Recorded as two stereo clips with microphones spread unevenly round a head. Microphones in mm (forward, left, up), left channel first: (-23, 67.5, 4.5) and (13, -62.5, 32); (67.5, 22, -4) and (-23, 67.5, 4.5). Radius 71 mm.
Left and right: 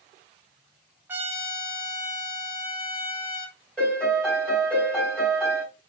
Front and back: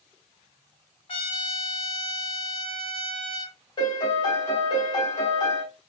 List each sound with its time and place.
1.1 s a trumpet: 5° left, 1.4 m
3.8 s a piano: 15° left, 3 m